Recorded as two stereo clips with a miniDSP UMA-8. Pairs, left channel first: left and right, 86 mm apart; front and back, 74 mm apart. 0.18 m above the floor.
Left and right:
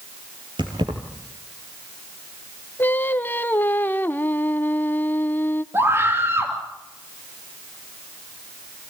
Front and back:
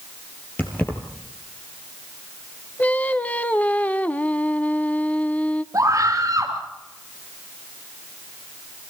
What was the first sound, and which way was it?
Keys jangling, 65° right.